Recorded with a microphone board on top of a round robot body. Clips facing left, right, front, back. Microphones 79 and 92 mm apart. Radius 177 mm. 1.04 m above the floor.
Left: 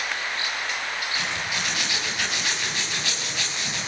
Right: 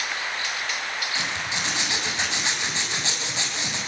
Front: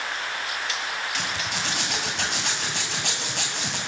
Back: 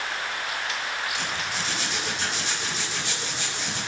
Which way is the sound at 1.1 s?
25° right.